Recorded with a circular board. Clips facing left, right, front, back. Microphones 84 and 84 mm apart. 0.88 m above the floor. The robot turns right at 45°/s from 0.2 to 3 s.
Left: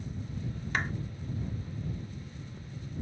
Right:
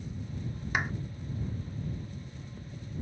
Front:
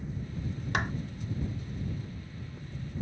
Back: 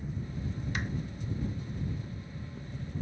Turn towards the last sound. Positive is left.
turn(degrees=90)